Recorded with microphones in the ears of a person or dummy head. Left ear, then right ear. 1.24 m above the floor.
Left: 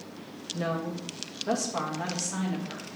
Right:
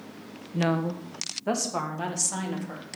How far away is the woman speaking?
About 0.7 m.